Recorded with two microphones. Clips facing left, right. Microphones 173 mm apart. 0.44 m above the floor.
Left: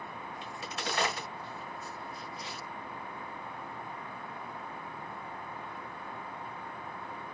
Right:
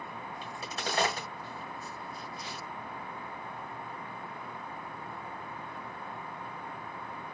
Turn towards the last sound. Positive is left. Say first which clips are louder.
# right 1 dB
turn(degrees=-35)  # may be behind; listen again after turning